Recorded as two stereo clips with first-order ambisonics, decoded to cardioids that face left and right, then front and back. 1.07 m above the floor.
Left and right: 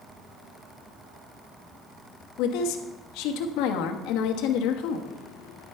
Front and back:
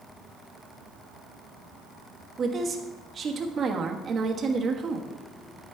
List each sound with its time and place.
2.4 s a woman speaking: 115° left, 1.2 m